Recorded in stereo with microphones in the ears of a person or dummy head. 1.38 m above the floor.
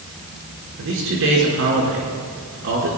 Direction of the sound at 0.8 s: 70° right (ahead or behind).